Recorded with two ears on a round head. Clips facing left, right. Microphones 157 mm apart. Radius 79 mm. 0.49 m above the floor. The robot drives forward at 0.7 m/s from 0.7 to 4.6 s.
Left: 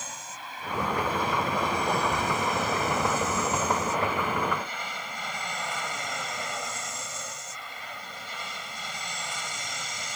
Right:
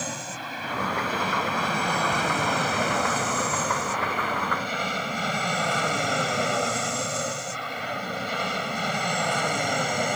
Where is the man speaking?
No man speaking in this recording.